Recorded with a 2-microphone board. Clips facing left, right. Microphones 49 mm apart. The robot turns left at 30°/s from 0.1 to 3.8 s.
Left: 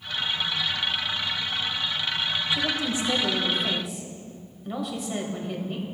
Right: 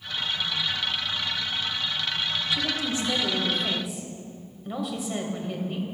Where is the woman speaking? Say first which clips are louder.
Left 1 dB; 40° left, 1.4 m; by 5.8 s straight ahead, 1.4 m.